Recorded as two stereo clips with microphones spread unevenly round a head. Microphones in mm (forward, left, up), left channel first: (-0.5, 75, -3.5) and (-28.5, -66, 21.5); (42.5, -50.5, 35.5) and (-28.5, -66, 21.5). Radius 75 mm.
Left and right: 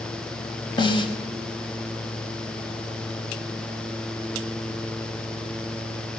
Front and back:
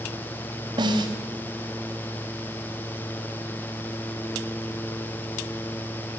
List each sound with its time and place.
0.8 s a snare drum: 140° left, 5 m